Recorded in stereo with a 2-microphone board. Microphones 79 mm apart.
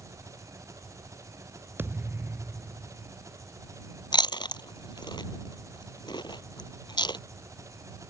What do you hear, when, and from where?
0.0 s an engine running: 40° right (ahead or behind)
1.8 s a thud: 25° right (ahead or behind)
4.1 s chewing: 70° left (ahead or behind)